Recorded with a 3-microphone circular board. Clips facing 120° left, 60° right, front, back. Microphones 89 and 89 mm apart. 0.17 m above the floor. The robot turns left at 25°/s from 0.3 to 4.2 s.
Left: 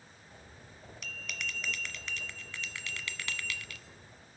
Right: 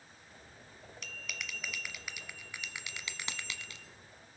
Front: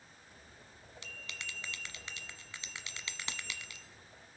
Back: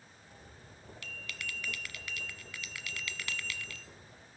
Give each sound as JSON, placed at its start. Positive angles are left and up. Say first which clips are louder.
{"t": 1.0, "sound": "a bell", "louder": "left 3 dB, back 3 dB", "azimuth_deg": 30, "distance_m": 1.1}